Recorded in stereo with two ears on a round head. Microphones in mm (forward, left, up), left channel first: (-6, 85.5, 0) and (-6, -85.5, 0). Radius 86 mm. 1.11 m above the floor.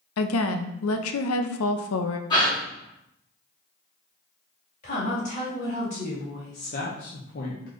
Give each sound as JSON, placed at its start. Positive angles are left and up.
{"t": 0.2, "sound": "a woman speaking", "side_deg": 90, "distance_m": 0.5}
{"t": 2.3, "sound": "a gasp", "side_deg": 20, "distance_m": 1.9}
{"t": 4.8, "sound": "a woman speaking", "side_deg": 40, "distance_m": 2.5}
{"t": 6.7, "sound": "a man speaking", "side_deg": 50, "distance_m": 0.7}